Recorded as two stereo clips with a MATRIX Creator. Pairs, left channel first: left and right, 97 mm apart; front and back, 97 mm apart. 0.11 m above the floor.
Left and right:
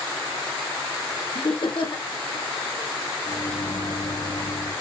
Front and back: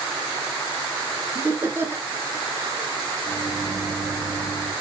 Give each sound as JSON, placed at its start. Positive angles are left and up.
{"t": 1.4, "sound": "laughter", "azimuth_deg": 115, "distance_m": 4.0}
{"t": 3.2, "sound": "a microwave", "azimuth_deg": 90, "distance_m": 8.5}